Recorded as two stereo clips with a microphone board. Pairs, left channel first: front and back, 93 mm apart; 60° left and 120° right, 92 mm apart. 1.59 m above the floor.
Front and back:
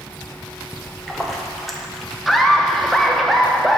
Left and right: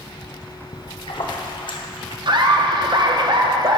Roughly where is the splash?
Left.